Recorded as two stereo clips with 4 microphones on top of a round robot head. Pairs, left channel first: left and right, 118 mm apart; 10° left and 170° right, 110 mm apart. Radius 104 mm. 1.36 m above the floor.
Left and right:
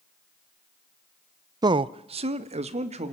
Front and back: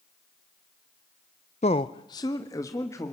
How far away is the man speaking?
About 0.5 m.